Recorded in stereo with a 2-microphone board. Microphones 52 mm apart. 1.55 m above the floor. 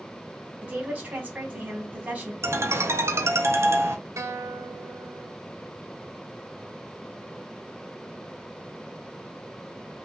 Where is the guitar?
65° right (ahead or behind), 0.7 m.